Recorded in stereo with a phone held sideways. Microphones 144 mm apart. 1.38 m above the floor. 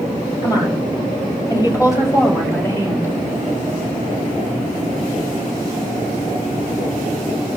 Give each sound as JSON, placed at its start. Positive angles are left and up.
{"t": 0.4, "sound": "a woman speaking", "side_deg": 30, "distance_m": 7.5}